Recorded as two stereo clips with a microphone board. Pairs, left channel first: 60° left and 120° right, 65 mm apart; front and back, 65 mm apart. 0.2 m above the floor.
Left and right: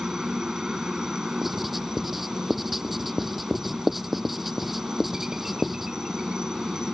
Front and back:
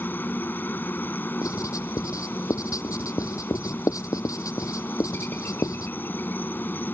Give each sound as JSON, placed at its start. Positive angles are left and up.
{"t": 0.0, "sound": "a helicopter", "azimuth_deg": -45}
{"t": 1.4, "sound": "writing", "azimuth_deg": -30}